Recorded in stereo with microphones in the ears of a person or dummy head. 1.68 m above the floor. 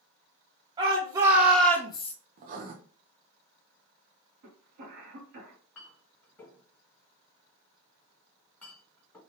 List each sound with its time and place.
0.8 s a shout: 25° right (ahead or behind), 1.0 m; by 2.1 s 40° left (ahead or behind), 0.5 m
2.4 s writing: 40° right (ahead or behind), 0.6 m
4.4 s a cough: 60° right (ahead or behind), 1.4 m
5.8 s a clink: 15° left (ahead or behind), 1.6 m